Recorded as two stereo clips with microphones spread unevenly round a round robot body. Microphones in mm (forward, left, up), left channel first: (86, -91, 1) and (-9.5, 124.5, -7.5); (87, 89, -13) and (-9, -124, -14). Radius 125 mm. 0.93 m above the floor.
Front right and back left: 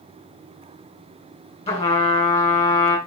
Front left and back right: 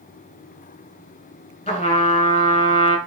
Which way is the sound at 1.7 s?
Straight ahead.